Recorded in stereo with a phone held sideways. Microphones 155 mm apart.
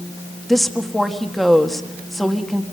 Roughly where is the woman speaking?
Centre.